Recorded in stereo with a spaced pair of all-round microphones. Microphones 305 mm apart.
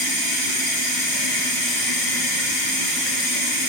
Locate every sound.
0.0 s running water: 50° right (ahead or behind), 4.5 m